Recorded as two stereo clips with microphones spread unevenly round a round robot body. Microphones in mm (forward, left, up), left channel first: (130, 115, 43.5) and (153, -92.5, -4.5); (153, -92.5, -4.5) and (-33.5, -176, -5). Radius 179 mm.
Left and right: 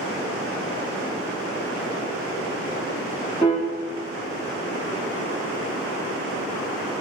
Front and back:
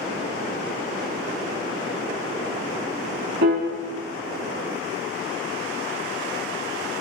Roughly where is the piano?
Behind.